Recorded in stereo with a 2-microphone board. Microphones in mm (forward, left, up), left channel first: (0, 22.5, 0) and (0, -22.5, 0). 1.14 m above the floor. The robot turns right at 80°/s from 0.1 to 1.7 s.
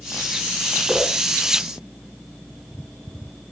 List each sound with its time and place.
0.9 s a whoosh: 5° right (ahead or behind), 4 m; by 1.1 s 15° left (ahead or behind), 4 m